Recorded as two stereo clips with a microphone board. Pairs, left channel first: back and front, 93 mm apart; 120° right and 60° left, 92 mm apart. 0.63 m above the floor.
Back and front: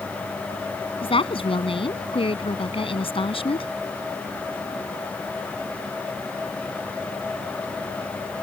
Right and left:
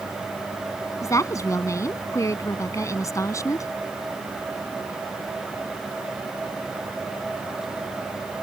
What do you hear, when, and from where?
1.0 s a woman speaking: 175° right